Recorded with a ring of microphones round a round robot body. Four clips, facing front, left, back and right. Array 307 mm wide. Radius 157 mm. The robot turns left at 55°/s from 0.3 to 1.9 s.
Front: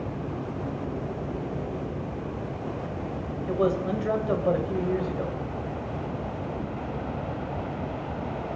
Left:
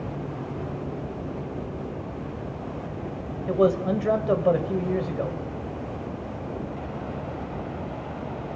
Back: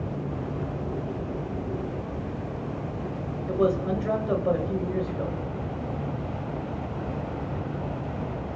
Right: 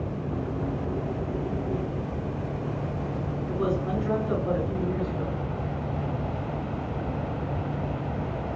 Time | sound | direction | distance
3.5 | a man speaking | 90° left | 2 m